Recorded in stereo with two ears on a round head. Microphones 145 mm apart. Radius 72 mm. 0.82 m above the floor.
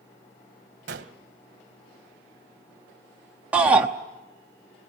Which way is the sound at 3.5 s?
10° right (ahead or behind).